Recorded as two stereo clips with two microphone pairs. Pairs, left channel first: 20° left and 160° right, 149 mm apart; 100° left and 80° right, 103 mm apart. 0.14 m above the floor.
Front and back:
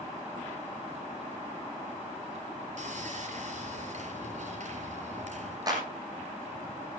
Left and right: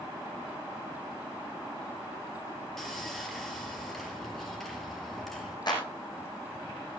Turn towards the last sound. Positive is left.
turn(degrees=140)